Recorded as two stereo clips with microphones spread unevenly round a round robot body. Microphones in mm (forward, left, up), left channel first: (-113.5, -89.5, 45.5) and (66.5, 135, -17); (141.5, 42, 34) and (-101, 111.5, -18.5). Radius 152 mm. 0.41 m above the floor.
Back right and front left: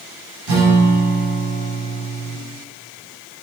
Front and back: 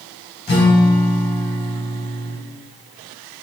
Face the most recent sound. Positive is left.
turn(degrees=60)